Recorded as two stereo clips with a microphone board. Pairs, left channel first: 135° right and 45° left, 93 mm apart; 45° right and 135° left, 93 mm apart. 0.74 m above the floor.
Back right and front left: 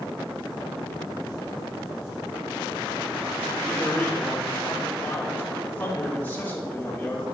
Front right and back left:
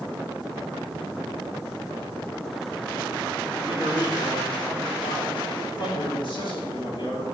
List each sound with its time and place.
3.5 s a man speaking: 65° right, 2.5 m